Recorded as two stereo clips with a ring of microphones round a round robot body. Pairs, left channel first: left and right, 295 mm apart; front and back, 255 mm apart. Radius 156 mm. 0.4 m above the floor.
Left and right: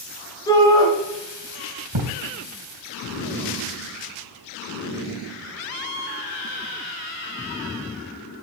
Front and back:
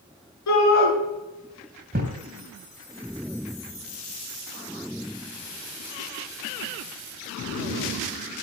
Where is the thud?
115° right, 3 m.